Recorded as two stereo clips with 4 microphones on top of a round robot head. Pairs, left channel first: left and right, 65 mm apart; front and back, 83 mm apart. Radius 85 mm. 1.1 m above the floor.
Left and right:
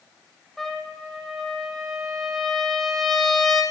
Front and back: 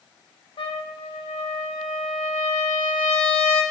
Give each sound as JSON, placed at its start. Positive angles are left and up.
{"t": 0.6, "sound": "a trumpet", "azimuth_deg": 5, "distance_m": 3.5}